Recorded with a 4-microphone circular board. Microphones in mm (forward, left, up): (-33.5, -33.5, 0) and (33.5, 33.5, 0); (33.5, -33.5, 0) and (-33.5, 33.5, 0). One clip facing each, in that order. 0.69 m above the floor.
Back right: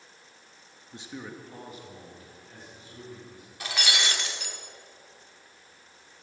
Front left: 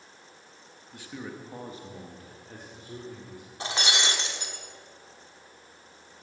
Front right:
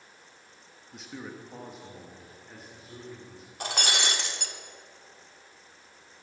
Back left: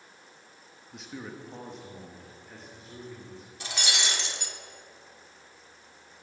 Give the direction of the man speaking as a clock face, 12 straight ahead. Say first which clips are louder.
Front left 1 dB, even; 4 o'clock.